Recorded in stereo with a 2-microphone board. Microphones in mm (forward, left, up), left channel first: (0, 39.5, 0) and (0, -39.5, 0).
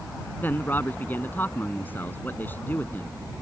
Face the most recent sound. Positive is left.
turn(degrees=25)  # may be behind; listen again after turning